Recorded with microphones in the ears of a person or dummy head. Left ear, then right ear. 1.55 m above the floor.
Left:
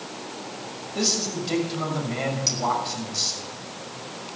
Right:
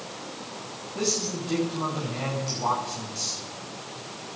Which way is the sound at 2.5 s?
60° left (ahead or behind).